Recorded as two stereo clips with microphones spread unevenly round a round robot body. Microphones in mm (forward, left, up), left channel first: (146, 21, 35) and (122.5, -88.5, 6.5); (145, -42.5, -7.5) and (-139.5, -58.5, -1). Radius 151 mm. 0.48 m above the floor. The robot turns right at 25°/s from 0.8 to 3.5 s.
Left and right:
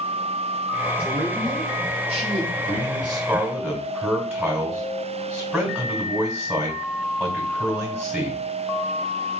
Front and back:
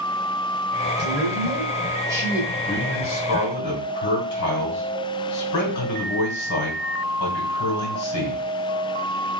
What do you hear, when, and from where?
1.0 s a man speaking: 125° right, 1.9 m; by 2.4 s 90° right, 1.9 m
2.5 s a man speaking: 45° right, 2.5 m; by 8.4 s 20° right, 2.5 m